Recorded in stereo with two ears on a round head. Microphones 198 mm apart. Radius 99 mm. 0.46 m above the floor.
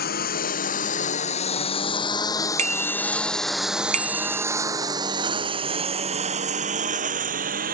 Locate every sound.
0.0 s a lawn mower: 50° left (ahead or behind); by 7.7 s 45° right (ahead or behind)
2.6 s a bicycle bell: 35° right (ahead or behind)